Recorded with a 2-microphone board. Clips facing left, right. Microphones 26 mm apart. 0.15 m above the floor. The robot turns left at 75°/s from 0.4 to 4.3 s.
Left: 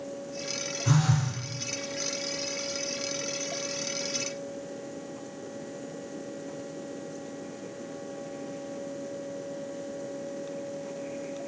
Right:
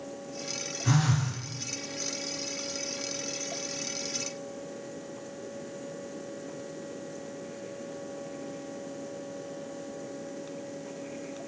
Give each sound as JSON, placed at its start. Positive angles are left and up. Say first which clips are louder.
{"t": 0.8, "sound": "a phone buzzing", "louder": "left 1 dB", "azimuth_deg": -105, "distance_m": 1.8}